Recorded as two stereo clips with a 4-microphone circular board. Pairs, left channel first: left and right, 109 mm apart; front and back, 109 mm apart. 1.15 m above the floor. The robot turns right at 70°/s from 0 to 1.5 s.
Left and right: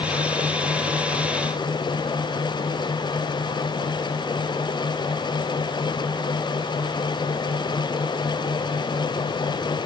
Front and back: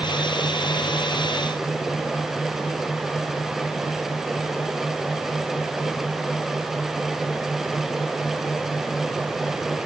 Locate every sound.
Only background noise.